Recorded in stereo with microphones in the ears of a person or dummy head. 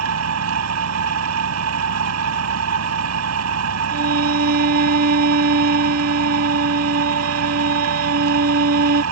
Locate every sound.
0.0 s an engine running: 85° right
3.9 s a violin: 50° right (ahead or behind)